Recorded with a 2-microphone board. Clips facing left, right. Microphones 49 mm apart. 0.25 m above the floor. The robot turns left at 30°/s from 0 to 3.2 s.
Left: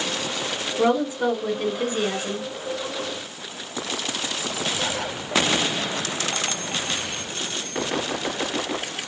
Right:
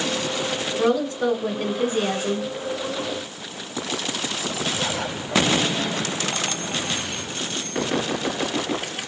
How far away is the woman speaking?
About 2.5 m.